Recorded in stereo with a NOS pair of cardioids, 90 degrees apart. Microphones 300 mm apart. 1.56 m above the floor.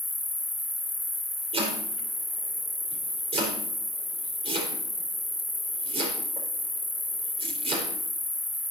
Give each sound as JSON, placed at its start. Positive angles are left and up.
{"t": 0.0, "sound": "an insect", "azimuth_deg": 5, "distance_m": 1.1}
{"t": 1.5, "sound": "chopping", "azimuth_deg": -20, "distance_m": 4.5}